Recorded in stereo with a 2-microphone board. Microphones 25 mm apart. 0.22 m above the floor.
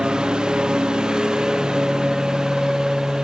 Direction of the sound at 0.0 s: 35° right (ahead or behind).